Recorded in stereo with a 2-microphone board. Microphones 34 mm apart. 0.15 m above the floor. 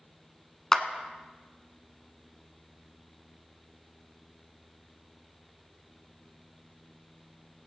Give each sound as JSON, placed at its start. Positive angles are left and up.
{"t": 0.7, "sound": "a clap", "side_deg": 15, "distance_m": 0.9}